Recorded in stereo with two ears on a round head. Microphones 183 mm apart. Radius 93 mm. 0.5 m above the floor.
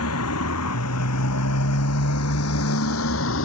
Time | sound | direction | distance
0.0 | a motorcycle | 75° left (ahead or behind) | ?